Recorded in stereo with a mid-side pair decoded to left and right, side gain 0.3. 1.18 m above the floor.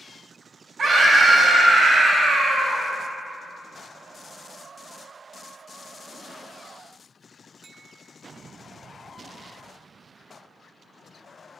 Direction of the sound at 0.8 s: 65° right.